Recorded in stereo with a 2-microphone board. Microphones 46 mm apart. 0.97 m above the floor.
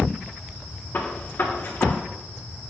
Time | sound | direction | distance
0.9 | a gunshot | 55° left (ahead or behind) | 1.3 m